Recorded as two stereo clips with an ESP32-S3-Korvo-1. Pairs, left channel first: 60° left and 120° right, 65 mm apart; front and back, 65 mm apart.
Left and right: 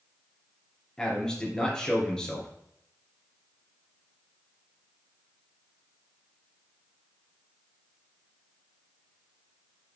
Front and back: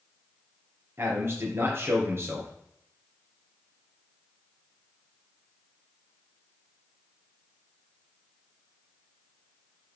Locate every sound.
1.0 s a man speaking: 135° left, 4 m